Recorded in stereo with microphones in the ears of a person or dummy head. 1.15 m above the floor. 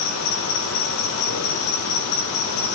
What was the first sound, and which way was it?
An insect, 80° left.